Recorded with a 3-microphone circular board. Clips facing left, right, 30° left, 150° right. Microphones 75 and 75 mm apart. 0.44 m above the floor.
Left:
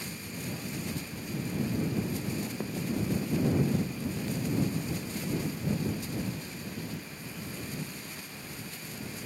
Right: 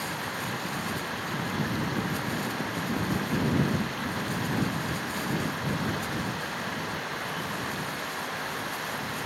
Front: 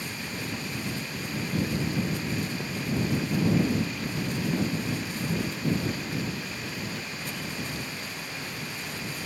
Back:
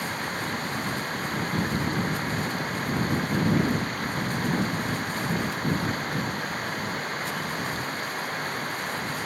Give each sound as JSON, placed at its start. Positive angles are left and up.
{"t": 0.0, "sound": "running water", "azimuth_deg": -110}